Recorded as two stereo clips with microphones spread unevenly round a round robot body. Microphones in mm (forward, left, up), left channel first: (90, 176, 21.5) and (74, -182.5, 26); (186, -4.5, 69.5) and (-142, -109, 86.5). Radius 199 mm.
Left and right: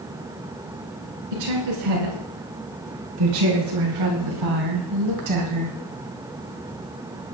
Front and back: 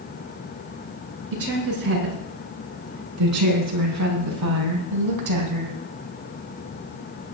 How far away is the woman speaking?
About 7.5 m.